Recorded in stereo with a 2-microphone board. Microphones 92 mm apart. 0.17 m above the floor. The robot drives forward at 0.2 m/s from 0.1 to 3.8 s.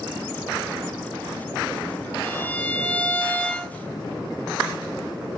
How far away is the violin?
About 0.6 m.